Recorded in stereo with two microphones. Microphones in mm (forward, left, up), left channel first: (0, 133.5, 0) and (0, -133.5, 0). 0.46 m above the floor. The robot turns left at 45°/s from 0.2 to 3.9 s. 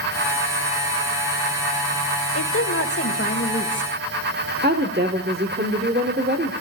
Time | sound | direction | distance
2.4 | a woman speaking | 95° left | 1.7 m
4.6 | a woman speaking | 40° right (ahead or behind) | 1.4 m